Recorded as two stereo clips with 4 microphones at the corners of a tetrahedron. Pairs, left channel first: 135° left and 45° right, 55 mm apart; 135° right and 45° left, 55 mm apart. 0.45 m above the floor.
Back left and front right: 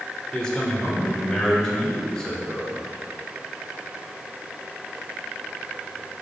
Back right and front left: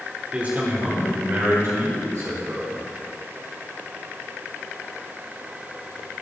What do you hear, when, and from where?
0.3 s a man speaking: 75° left, 1.5 m; by 2.8 s 55° left, 3 m